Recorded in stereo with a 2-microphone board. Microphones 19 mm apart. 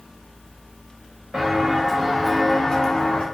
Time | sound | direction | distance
1.3 | footsteps | 40° right (ahead or behind) | 1.0 m